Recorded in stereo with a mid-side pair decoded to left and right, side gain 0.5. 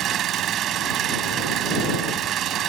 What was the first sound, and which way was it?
An engine running, 60° right.